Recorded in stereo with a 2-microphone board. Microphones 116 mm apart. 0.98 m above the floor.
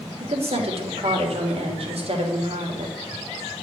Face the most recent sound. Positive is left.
turn(degrees=-60)  # may be behind; listen again after turning